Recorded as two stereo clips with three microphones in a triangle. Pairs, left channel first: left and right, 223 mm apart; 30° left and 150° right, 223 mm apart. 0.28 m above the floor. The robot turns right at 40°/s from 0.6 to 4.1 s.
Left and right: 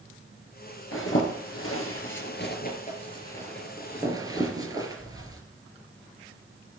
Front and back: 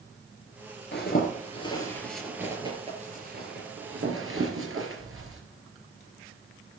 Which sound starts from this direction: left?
A zipper, at 0.9 s.